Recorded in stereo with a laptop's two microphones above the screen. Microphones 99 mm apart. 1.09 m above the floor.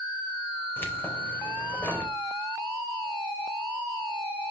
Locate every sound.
0.8 s keys jangling: 20° left (ahead or behind), 3.5 m